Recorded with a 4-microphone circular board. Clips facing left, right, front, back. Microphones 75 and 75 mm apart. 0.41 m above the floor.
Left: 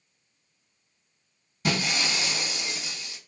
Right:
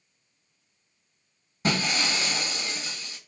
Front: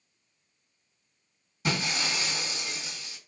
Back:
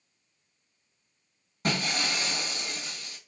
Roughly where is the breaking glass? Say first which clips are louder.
Right 1 dB, back 1 dB; behind right.